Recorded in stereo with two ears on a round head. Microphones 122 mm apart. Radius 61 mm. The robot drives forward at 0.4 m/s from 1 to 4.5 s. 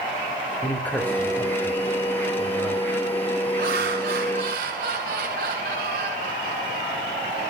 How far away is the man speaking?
About 1.6 m.